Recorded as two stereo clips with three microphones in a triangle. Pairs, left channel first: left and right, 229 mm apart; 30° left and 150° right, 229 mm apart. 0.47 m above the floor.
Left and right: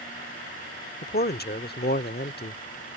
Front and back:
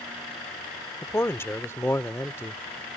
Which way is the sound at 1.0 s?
105° left.